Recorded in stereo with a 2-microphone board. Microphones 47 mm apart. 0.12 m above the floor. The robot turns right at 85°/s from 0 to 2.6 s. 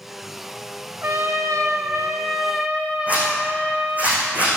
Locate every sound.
1.0 s a trumpet: 140° right, 2 m; by 4.1 s 5° right, 2 m
3.1 s a zipper: 30° right (ahead or behind), 7 m